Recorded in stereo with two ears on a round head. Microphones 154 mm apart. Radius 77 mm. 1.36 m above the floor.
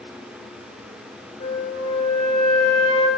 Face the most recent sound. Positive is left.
turn(degrees=35)  # may be behind; listen again after turning